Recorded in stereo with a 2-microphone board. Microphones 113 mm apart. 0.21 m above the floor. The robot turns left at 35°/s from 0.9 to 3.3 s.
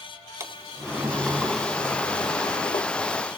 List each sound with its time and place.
0.4 s a sliding door: 155° right, 0.8 m; by 2.9 s 135° left, 0.8 m